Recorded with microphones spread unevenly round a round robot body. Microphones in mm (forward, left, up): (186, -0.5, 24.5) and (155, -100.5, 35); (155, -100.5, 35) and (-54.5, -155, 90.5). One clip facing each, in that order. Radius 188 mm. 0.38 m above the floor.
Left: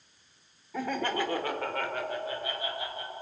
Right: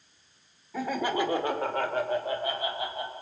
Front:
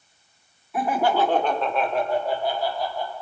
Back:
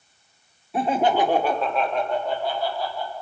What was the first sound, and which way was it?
Laughter, 145° left.